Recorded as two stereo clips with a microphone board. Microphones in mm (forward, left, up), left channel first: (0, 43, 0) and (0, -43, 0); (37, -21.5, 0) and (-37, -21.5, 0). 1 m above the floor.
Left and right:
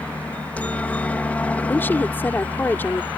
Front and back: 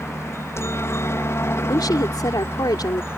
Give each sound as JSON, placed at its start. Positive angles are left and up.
{"t": 0.0, "sound": "a helicopter", "azimuth_deg": 25}
{"t": 1.7, "sound": "a woman speaking", "azimuth_deg": 25}